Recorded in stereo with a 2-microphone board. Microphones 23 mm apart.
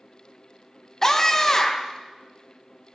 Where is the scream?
25° left (ahead or behind), 1.2 m.